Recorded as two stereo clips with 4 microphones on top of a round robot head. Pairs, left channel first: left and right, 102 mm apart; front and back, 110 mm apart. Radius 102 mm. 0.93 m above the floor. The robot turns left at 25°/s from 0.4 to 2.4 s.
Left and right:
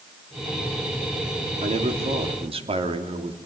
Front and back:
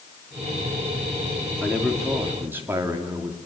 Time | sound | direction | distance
1.6 | a man speaking | 90° right | 2.5 m